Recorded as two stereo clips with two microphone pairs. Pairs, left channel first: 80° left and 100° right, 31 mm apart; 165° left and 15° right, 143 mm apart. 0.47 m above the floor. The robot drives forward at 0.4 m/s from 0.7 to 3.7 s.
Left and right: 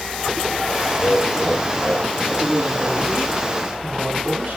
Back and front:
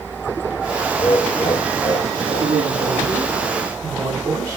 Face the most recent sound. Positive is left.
turn(degrees=-80)